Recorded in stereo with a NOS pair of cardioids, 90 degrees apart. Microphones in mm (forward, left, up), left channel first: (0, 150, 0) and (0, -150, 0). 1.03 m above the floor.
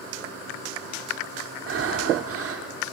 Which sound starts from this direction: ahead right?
Breathing, at 1.7 s.